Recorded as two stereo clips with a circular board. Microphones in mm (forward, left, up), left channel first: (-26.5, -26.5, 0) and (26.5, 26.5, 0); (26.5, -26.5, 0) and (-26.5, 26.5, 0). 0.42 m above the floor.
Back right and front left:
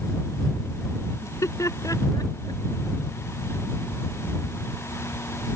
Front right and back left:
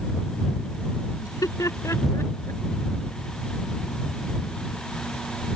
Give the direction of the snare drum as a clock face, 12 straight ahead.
No snare drum in this recording.